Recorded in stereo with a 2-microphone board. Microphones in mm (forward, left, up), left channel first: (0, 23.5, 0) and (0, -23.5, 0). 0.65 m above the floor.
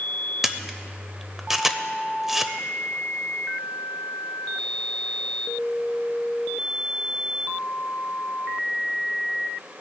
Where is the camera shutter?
10° right (ahead or behind), 0.6 m.